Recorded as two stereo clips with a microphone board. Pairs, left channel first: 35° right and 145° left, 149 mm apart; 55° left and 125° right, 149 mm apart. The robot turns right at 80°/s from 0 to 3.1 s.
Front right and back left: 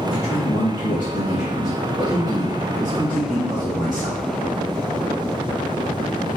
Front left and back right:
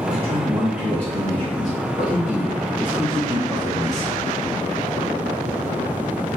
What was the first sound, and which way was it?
A man speaking, 95° right.